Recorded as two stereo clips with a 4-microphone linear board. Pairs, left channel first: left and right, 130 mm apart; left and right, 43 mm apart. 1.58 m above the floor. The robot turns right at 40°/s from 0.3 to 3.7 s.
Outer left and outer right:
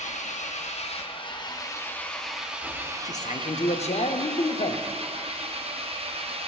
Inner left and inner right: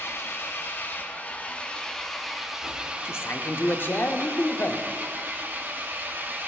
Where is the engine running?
100° left, 0.7 m; by 6.5 s 125° right, 0.7 m.